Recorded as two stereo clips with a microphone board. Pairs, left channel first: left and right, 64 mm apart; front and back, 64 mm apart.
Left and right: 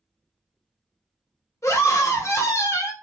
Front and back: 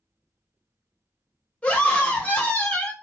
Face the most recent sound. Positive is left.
turn(degrees=65)